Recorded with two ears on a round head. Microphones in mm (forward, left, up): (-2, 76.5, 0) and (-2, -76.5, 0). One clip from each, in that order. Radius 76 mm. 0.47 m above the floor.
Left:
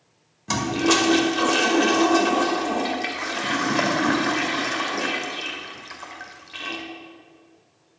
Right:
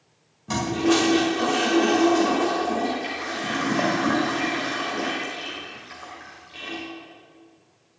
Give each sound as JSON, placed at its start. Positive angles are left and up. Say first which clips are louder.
{"t": 0.5, "sound": "a toilet flushing", "louder": "left 1 dB", "side_deg": 45, "distance_m": 2.0}